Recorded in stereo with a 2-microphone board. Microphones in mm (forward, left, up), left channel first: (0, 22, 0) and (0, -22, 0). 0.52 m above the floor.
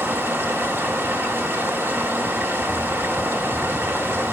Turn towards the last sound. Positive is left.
turn(degrees=-60)  # may be behind; listen again after turning